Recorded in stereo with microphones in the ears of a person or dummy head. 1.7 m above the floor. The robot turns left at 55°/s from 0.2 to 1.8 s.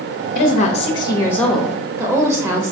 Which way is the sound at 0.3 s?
65° left.